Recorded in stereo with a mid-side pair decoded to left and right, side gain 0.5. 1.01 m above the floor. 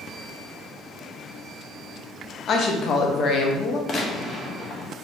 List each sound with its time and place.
2.5 s a woman speaking: 55° left, 0.8 m
3.9 s a gunshot: 45° left, 0.7 m